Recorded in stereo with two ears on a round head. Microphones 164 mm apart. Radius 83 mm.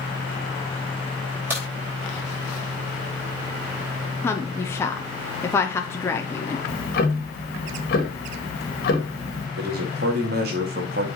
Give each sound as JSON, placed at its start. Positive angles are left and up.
{"t": 1.5, "sound": "a crack", "side_deg": -10, "distance_m": 4.0}
{"t": 4.2, "sound": "a woman speaking", "side_deg": 15, "distance_m": 0.7}
{"t": 6.7, "sound": "ticking", "side_deg": 50, "distance_m": 1.7}
{"t": 9.6, "sound": "a man speaking", "side_deg": -55, "distance_m": 1.8}